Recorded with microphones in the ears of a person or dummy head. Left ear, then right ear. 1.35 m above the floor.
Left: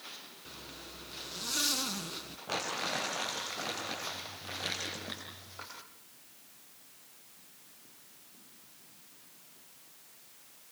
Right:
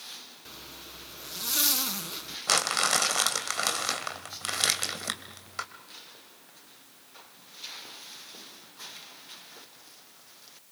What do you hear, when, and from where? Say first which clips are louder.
0.5 s a zipper: right 1 dB; 15° right (ahead or behind), 1.1 m
2.5 s crumpling: right 9 dB; 70° right (ahead or behind), 3 m